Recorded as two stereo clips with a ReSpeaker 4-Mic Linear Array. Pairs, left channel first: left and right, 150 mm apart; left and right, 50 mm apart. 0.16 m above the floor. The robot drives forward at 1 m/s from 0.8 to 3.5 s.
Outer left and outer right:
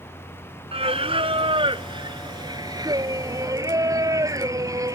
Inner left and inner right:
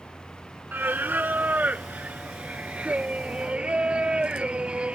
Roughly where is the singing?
Right.